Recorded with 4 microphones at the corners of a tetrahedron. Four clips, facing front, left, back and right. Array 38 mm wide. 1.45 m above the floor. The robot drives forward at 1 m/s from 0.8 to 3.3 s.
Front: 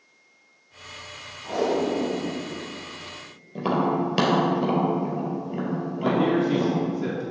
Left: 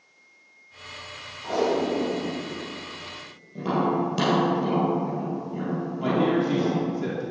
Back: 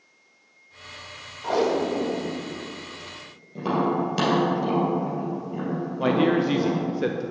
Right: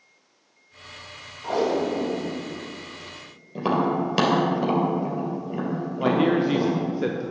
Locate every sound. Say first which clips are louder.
1.4 s tape being pulled: right 1 dB, back 1 dB; 170° right, 1.5 m; by 3.9 s 175° right, 3.5 m
3.5 s tapping: right 1 dB, even; 60° right, 3 m
6.0 s a man speaking: right 2 dB, back 1 dB; 150° right, 0.6 m